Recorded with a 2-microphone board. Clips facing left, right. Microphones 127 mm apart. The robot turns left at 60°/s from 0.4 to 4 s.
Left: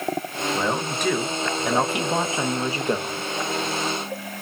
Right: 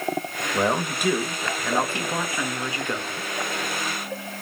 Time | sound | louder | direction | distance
0.5 | a man speaking | right 3 dB | 20° right (ahead or behind) | 0.7 m